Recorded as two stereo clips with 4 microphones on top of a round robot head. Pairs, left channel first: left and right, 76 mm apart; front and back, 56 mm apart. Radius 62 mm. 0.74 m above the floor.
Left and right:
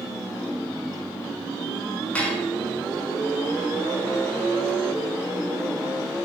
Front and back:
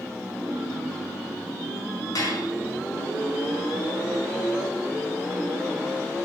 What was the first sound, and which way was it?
Dishes clattering, 15° left.